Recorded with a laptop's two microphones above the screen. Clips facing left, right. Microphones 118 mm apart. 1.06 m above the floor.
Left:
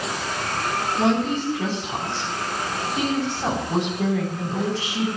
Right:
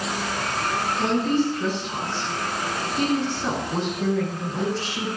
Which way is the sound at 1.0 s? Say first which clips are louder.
Even; 85° left.